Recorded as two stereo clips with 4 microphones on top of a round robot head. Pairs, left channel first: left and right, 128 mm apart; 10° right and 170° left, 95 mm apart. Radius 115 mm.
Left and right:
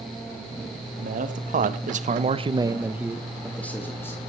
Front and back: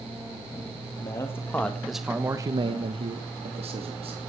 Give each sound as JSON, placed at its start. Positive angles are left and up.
{"t": 1.0, "sound": "a man speaking", "azimuth_deg": -70, "distance_m": 2.0}